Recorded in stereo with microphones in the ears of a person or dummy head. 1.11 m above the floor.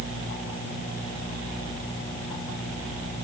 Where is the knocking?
I don't hear knocking.